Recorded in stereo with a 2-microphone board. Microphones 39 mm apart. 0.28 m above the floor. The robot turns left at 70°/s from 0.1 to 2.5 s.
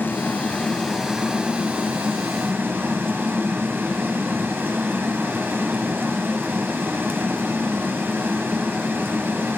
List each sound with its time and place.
0.0 s running water: 65° left, 1.5 m; by 9.6 s 100° right, 1.5 m